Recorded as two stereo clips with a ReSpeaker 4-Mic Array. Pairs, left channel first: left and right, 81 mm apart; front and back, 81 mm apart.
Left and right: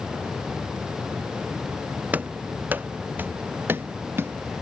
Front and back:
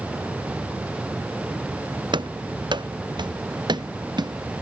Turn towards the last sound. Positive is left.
turn(degrees=-150)